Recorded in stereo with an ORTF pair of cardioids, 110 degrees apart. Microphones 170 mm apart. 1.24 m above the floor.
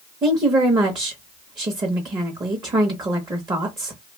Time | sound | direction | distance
0.2 | a woman speaking | 30° right | 1.0 m